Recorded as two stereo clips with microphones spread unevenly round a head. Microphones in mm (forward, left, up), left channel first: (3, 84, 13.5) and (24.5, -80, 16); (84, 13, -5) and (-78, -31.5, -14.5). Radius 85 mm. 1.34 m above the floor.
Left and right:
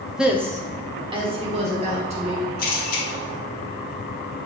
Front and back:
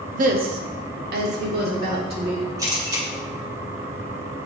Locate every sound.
0.1 s a woman speaking: 170° right, 0.5 m; by 2.5 s 135° right, 1.6 m
2.6 s a camera shutter: 125° left, 1.1 m